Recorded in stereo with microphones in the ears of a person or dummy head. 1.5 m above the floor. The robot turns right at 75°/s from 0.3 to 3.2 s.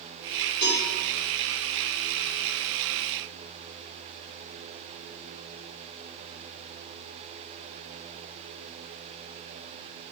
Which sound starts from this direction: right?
A cowbell, at 0.6 s.